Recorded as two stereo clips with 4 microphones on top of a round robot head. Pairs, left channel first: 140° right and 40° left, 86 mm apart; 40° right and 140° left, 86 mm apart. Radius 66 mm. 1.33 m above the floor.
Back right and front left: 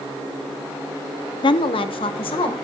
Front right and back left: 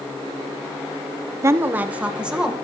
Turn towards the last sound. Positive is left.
turn(degrees=-135)